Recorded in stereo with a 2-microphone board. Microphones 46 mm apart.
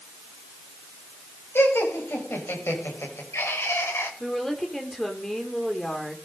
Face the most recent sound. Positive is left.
turn(degrees=10)  # may be behind; listen again after turning